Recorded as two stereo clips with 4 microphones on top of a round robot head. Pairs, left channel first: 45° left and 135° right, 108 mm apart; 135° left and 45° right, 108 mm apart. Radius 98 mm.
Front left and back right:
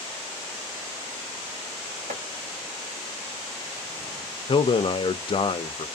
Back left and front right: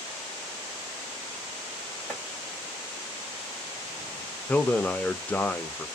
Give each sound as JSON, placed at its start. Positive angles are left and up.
{"t": 2.1, "sound": "chopping", "azimuth_deg": -140, "distance_m": 1.6}
{"t": 4.5, "sound": "a man speaking", "azimuth_deg": 60, "distance_m": 0.6}